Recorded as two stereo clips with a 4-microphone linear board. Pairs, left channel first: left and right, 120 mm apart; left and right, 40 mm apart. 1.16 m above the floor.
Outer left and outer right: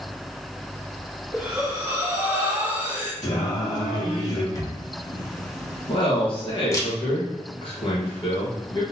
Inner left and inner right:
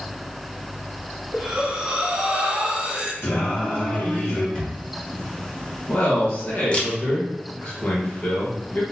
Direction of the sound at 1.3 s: 30° right (ahead or behind).